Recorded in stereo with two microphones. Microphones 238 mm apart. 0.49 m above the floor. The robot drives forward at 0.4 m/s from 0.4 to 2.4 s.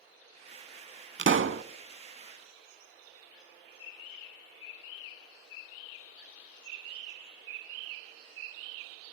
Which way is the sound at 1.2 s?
55° right (ahead or behind).